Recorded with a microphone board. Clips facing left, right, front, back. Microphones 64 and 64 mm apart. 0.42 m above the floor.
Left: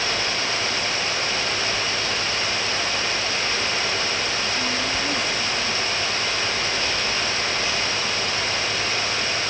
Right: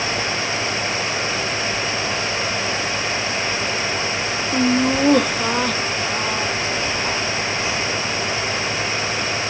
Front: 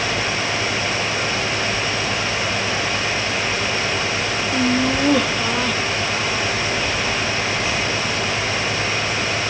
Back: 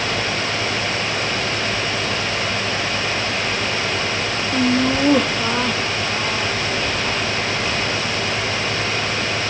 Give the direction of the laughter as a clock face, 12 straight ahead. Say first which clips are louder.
Right 8 dB, back 2 dB; 3 o'clock.